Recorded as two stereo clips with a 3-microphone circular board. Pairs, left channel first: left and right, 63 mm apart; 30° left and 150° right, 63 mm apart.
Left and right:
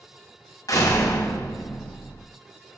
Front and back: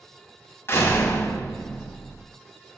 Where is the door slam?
80° left, 3 m.